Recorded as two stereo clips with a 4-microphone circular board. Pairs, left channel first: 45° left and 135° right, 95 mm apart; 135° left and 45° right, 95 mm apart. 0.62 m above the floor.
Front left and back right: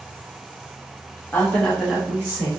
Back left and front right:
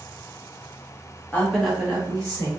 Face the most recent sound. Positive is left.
turn(degrees=-75)